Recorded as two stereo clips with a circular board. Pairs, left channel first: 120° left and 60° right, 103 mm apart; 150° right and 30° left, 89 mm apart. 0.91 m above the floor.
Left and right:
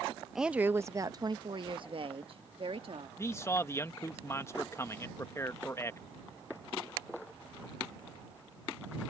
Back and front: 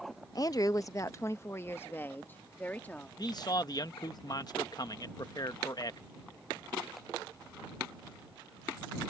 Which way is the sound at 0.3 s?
145° right.